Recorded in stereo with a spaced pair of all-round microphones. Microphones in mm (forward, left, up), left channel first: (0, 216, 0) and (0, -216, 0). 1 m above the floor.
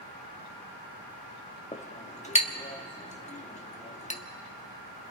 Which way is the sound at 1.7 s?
15° left (ahead or behind).